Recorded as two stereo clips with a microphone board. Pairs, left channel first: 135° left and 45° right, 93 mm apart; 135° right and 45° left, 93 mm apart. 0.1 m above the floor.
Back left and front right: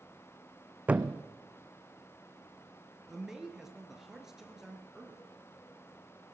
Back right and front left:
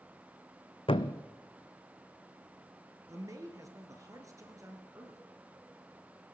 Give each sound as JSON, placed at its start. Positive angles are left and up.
{"t": 0.9, "sound": "a thud", "azimuth_deg": -120, "distance_m": 0.7}
{"t": 3.1, "sound": "a man speaking", "azimuth_deg": 35, "distance_m": 1.9}